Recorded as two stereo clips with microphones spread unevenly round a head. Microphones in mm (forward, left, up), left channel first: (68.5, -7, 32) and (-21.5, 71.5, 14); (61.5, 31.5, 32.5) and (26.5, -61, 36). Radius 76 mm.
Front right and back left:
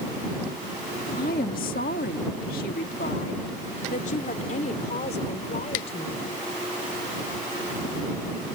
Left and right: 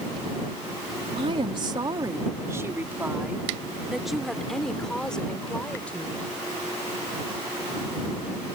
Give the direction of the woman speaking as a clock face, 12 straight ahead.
3 o'clock.